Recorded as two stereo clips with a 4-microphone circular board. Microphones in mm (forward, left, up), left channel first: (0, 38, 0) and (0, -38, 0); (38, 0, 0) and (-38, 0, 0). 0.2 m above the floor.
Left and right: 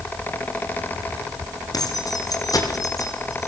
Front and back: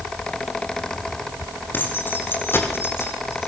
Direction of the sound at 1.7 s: 60° left.